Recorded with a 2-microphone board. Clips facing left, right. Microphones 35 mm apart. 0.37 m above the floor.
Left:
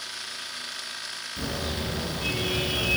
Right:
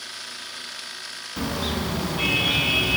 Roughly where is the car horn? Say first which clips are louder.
Right 5 dB; right.